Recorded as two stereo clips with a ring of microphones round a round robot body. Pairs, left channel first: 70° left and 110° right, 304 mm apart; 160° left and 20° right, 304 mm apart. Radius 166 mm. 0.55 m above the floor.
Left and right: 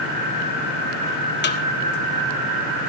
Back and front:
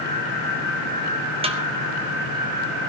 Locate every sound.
1.4 s a snare drum: 40° left, 1.4 m